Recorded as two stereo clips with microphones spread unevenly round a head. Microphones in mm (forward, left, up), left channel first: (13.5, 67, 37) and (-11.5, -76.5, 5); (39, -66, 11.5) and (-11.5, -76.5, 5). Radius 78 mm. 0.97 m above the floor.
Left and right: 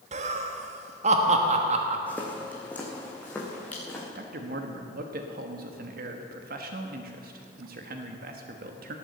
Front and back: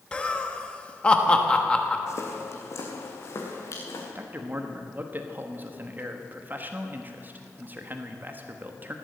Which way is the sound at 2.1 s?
5° left.